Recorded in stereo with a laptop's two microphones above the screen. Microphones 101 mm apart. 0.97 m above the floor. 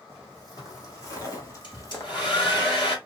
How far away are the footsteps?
About 3 m.